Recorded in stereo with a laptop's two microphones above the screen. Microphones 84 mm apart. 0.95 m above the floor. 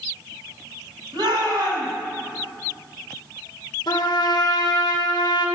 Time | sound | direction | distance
1.1 | a shout | 65° right (ahead or behind) | 6 m
3.9 | a trumpet | 65° left (ahead or behind) | 2.5 m